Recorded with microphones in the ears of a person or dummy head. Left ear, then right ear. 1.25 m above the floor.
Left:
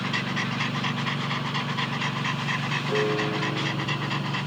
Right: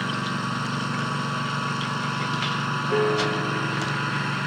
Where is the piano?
25° right (ahead or behind).